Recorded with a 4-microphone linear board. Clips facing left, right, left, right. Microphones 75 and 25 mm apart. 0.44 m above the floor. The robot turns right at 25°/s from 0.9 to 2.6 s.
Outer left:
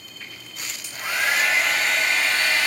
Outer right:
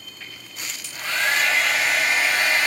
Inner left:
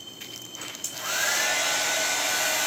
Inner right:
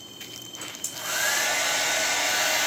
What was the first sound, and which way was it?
A hair dryer, 160° left.